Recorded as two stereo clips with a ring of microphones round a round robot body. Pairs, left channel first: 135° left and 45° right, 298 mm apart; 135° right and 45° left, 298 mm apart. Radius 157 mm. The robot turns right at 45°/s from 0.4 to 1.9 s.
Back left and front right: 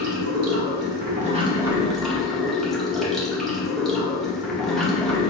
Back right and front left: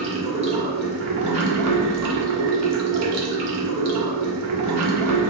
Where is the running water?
20° right, 1.0 m; by 5.3 s 45° left, 1.0 m.